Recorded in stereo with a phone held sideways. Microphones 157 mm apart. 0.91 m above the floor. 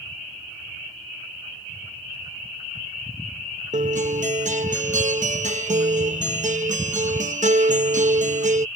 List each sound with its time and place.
3.7 s a guitar: 50° right (ahead or behind)